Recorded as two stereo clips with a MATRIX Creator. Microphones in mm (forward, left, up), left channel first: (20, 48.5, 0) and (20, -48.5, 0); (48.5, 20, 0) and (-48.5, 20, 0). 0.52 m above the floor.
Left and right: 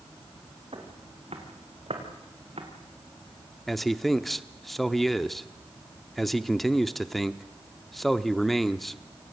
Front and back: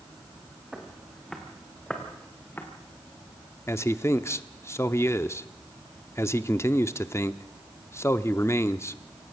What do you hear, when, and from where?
0.7 s footsteps: 95° right, 4.5 m; by 2.7 s 70° right, 4 m
3.7 s a man speaking: 5° left, 0.7 m